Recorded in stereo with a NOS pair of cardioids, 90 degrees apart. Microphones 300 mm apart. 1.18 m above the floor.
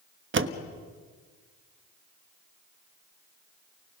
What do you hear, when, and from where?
0.3 s a door slam: 40° right, 1.3 m